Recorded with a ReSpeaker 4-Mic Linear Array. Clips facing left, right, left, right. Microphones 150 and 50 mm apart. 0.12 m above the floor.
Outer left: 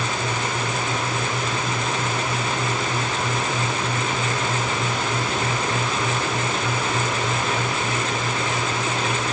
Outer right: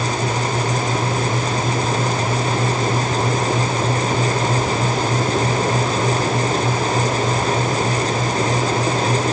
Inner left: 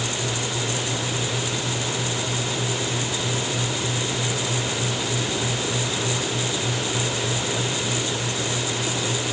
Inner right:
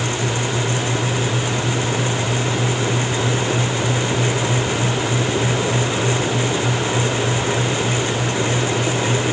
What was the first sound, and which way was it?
Only background noise.